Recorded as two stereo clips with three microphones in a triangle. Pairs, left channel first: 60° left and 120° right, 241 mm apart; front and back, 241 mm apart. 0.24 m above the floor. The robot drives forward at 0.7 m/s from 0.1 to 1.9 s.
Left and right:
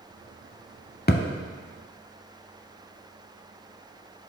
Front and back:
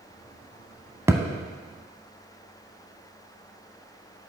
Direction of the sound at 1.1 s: 100° left.